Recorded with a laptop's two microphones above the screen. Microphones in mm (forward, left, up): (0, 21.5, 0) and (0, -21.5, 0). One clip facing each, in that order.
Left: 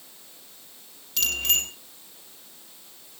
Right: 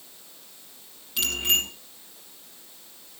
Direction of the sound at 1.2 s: 20° right (ahead or behind).